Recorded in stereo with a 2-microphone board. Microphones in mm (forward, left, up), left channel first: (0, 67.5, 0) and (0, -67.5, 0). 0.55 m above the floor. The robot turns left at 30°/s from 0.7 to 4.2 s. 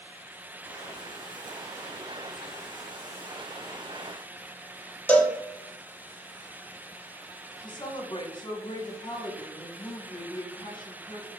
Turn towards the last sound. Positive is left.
turn(degrees=35)  # may be behind; listen again after turning